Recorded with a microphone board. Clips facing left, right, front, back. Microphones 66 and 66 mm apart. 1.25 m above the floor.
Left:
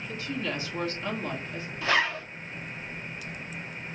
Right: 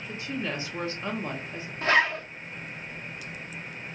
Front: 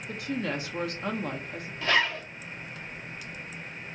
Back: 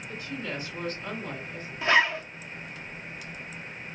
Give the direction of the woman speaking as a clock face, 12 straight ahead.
1 o'clock.